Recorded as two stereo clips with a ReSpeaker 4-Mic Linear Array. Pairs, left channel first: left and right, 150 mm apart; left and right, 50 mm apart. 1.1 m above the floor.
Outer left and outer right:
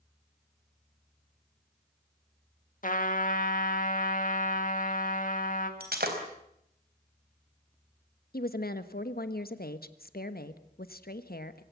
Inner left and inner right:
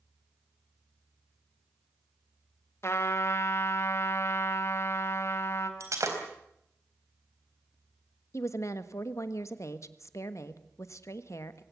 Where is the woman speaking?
75° left (ahead or behind), 1.4 m.